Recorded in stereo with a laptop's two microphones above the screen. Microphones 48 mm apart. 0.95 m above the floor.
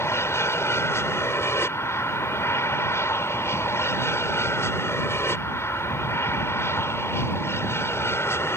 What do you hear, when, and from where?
0.0 s an aircraft: 70° left (ahead or behind); by 8.6 s 65° left (ahead or behind)